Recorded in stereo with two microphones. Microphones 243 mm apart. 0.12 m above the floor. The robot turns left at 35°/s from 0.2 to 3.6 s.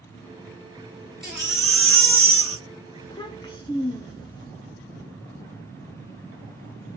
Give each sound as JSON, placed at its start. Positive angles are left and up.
{"t": 1.2, "sound": "a baby crying", "azimuth_deg": -50, "distance_m": 0.9}
{"t": 3.0, "sound": "a child speaking", "side_deg": 20, "distance_m": 0.7}